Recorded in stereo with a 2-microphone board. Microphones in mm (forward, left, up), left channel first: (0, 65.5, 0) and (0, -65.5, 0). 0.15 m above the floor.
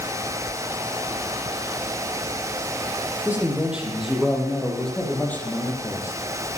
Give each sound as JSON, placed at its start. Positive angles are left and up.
{"t": 3.2, "sound": "a man speaking", "side_deg": -10, "distance_m": 5.5}